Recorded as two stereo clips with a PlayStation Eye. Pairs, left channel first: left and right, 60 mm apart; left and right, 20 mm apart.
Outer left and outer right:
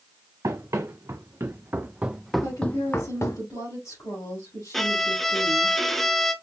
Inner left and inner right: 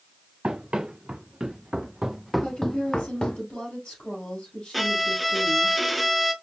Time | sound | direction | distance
0.4 | running footsteps | 60° right (ahead or behind) | 1.2 m
2.4 | a woman speaking | 65° left (ahead or behind) | 4 m
4.7 | a violin | 5° left (ahead or behind) | 0.6 m